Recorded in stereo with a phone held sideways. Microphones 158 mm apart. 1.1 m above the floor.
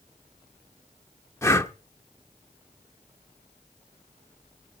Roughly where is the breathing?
Centre.